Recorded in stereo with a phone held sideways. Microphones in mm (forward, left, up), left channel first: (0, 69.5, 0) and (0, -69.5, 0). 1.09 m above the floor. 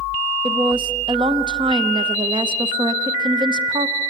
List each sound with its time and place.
0.4 s a woman speaking: 35° right (ahead or behind), 0.9 m